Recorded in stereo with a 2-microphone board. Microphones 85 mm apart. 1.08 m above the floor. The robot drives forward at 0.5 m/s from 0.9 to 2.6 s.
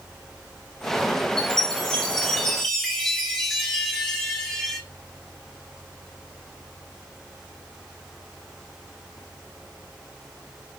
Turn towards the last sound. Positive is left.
turn(degrees=5)  # may be behind; listen again after turning